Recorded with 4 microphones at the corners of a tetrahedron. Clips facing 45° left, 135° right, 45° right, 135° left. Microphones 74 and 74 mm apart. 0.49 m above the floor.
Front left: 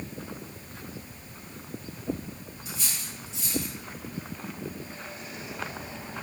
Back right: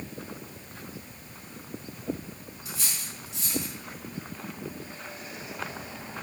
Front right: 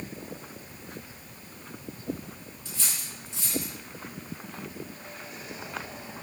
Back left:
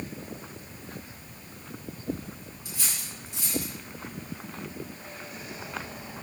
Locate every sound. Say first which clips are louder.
2.6 s cutlery clinking: even, even; 145° right, 3.5 m